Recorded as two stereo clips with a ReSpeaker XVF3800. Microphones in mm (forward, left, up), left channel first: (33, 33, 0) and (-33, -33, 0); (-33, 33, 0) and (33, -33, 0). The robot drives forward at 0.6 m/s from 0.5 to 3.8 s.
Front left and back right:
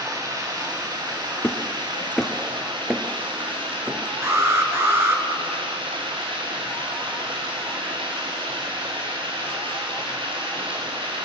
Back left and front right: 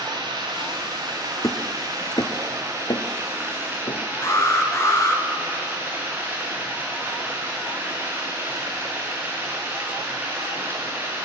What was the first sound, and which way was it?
Running water, 85° right.